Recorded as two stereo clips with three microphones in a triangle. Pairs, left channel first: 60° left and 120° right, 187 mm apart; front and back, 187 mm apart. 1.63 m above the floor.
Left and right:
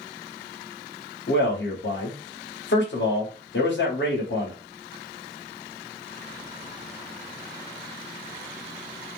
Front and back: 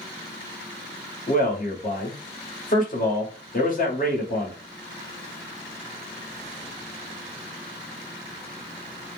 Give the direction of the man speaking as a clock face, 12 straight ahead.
11 o'clock.